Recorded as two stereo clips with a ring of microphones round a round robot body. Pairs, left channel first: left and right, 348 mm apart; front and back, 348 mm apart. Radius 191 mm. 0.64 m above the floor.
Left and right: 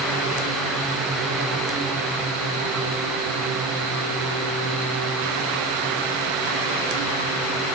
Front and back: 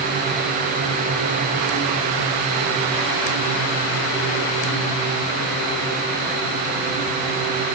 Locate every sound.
Only background noise.